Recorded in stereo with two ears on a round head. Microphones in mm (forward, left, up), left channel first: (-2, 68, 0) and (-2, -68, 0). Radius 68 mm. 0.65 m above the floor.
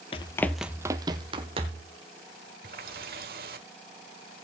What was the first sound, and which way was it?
Running footsteps, 35° left (ahead or behind).